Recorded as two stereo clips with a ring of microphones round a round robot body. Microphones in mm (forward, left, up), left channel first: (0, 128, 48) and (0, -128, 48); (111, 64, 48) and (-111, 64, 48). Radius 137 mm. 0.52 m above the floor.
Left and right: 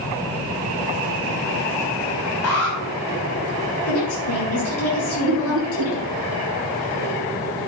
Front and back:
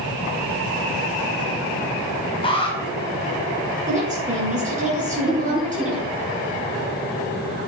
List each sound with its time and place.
2.4 s an alarm: 65° left, 4.5 m
3.9 s a woman speaking: 125° left, 8 m
5.3 s laughter: 95° right, 1.9 m